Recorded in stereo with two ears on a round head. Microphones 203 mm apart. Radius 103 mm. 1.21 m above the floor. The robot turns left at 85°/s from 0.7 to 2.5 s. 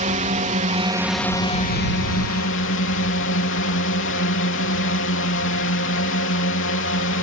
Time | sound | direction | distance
0.0 | a drone | 140° right | ?